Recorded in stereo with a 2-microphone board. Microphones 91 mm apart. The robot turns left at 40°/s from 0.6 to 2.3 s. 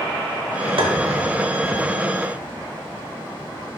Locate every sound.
0.8 s tapping: 60° right (ahead or behind), 0.7 m; by 0.9 s 55° right (ahead or behind), 0.7 m